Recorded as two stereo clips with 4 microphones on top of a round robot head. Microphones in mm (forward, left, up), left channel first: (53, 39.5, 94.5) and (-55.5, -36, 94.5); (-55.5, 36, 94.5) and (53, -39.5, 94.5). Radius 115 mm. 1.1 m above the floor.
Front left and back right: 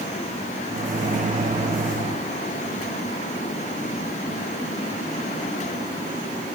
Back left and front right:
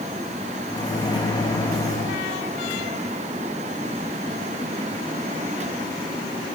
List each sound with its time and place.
0.7 s a microwave: 155° right, 1.2 m